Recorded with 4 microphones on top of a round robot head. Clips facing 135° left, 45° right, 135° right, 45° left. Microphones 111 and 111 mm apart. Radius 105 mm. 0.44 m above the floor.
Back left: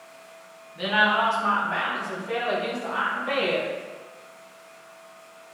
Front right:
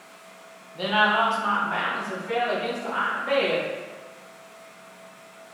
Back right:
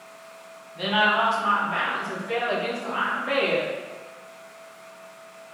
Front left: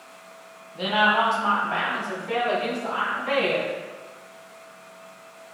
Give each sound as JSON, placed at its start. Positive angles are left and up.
{"t": 0.8, "sound": "a woman speaking", "azimuth_deg": -5, "distance_m": 1.2}